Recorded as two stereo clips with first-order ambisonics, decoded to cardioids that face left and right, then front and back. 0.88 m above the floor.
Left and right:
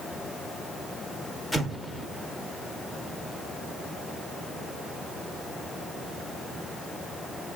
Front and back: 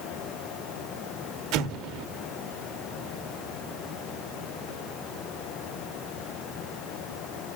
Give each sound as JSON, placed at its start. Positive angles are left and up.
{"t": 1.5, "sound": "an explosion", "azimuth_deg": 170, "distance_m": 0.8}